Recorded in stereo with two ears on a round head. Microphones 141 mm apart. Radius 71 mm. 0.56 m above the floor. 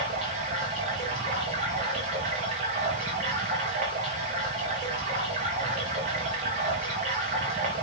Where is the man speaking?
I don't hear a man speaking.